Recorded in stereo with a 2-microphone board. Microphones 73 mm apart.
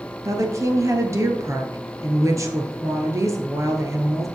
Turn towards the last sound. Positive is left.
turn(degrees=-45)  # may be behind; listen again after turning